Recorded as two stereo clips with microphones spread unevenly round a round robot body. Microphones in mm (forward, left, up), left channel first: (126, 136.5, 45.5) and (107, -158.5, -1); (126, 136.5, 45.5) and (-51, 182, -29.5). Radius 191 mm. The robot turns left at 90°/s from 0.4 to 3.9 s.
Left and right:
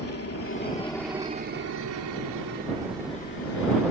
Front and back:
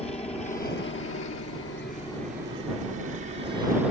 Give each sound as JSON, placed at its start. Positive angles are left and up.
{"t": 0.0, "sound": "a helicopter", "azimuth_deg": 50}